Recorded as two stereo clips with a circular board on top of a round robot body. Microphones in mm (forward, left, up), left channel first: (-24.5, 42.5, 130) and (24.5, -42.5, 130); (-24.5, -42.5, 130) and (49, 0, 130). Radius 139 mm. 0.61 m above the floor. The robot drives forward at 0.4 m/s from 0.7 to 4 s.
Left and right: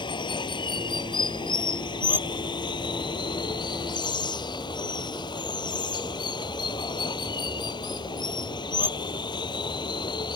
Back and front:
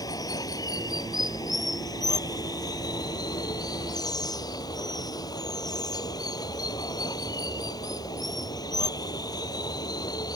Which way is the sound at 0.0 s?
160° left.